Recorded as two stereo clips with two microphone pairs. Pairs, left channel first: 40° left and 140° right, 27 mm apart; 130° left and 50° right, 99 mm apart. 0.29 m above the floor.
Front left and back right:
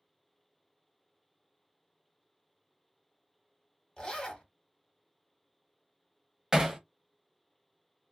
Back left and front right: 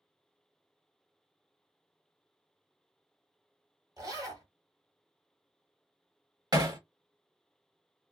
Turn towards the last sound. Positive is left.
turn(degrees=-75)